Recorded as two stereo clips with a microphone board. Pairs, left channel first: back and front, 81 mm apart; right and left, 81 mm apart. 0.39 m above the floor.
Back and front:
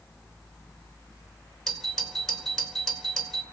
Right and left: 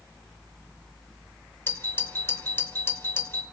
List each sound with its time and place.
1.7 s a doorbell: 100° right, 2 m